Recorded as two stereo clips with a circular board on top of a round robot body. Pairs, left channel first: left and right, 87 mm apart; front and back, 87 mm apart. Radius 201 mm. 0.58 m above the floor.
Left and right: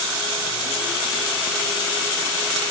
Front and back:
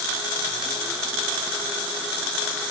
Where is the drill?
I don't hear a drill.